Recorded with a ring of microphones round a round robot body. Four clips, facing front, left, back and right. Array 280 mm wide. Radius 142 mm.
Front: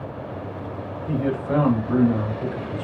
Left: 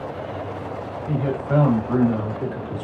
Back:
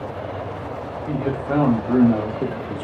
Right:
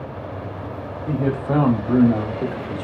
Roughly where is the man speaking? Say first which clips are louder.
Right 2 dB, even; right.